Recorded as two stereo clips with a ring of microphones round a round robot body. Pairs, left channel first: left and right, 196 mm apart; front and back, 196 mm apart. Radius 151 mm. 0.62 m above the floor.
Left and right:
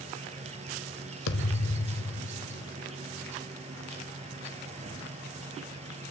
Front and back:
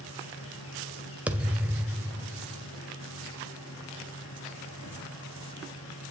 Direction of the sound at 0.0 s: 35° right.